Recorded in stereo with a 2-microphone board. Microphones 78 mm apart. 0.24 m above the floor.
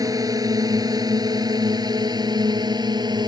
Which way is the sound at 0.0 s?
55° right (ahead or behind).